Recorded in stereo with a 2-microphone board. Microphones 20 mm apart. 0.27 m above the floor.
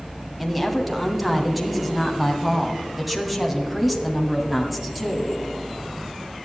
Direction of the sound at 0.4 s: 5° right (ahead or behind).